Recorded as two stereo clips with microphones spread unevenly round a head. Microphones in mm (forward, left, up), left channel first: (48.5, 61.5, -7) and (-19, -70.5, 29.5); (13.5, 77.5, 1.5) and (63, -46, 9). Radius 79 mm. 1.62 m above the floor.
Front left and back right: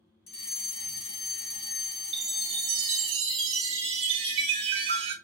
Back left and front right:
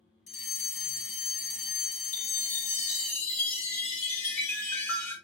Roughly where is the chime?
Behind.